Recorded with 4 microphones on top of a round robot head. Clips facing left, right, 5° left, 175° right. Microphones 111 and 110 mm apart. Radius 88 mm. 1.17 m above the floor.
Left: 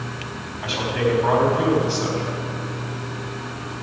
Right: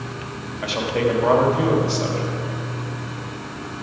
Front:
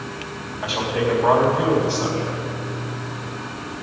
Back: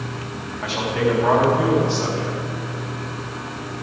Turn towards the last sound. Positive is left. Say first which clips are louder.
# right 1 dB, back 1 dB
turn(degrees=-80)